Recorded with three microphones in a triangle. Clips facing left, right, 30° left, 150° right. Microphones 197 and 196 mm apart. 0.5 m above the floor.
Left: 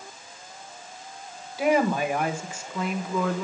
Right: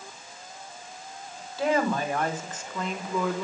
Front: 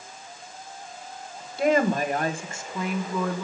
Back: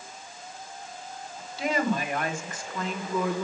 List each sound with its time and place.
1.6 s a woman speaking: 15° left, 2.0 m; by 3.4 s 175° right, 1.3 m